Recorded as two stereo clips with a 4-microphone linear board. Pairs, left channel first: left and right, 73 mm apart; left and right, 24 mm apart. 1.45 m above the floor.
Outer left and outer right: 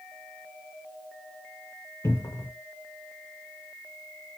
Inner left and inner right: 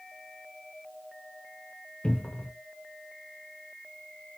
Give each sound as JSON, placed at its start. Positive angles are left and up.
{"t": 2.0, "sound": "a cupboard door", "side_deg": 40, "distance_m": 0.7}